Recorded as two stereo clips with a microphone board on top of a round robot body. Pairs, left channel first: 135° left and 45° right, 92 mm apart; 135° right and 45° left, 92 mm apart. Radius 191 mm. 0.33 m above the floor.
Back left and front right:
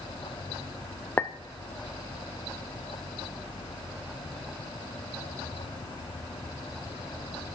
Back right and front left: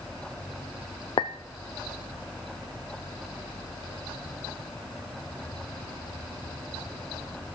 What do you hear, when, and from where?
1.2 s a clink: 155° right, 0.8 m